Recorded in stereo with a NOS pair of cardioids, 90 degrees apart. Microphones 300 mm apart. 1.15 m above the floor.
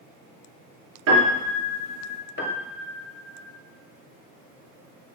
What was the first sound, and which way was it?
A piano, 65° right.